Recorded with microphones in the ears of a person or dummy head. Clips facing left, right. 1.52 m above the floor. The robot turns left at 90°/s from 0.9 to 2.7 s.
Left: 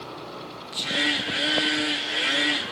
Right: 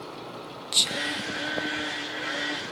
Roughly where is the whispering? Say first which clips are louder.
Left 5 dB; right.